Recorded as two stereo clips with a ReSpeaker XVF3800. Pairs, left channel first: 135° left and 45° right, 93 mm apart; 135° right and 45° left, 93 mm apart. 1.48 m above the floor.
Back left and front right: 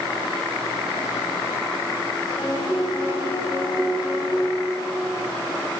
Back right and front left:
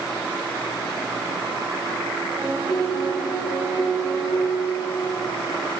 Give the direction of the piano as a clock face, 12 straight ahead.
8 o'clock.